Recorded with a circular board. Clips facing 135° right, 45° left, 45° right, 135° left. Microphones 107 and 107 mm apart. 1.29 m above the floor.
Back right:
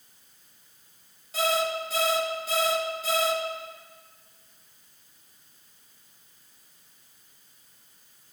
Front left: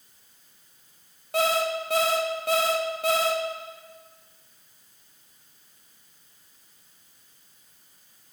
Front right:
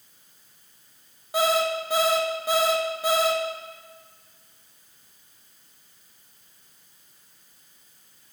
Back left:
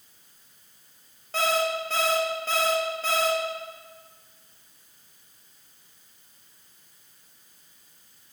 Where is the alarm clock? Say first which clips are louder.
Front left 2 dB, front right 3 dB; 30° left, 0.7 m.